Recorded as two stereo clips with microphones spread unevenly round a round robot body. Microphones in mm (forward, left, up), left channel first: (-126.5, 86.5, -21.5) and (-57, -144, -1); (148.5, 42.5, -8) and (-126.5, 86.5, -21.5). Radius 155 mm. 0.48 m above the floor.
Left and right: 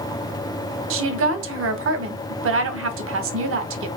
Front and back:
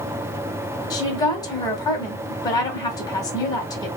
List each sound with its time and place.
0.9 s a woman speaking: 85° right, 1.1 m